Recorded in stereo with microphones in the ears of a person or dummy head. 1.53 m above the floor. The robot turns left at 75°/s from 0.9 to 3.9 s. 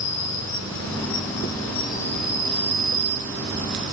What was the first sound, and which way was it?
An insect, 100° left.